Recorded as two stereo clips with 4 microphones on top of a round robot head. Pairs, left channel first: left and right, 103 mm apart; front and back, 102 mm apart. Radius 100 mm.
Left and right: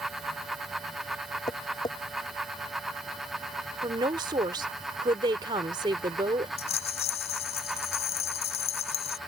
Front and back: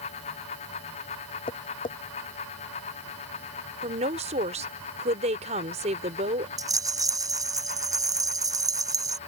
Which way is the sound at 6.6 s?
125° left.